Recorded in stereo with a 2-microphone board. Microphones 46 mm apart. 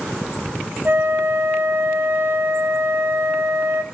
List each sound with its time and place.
0.8 s a flute: 50° right (ahead or behind), 0.9 m